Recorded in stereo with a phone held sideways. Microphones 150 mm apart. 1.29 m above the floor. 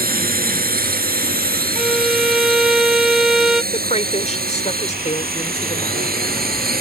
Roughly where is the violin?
Centre.